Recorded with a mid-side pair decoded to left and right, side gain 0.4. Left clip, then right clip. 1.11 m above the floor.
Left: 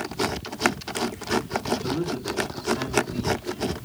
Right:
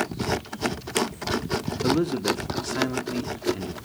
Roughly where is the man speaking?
Ahead right.